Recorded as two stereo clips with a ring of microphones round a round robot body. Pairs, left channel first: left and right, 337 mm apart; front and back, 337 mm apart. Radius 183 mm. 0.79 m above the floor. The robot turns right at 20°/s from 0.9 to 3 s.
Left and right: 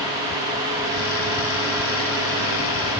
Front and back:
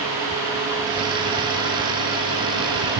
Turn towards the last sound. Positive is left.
No sound to turn to.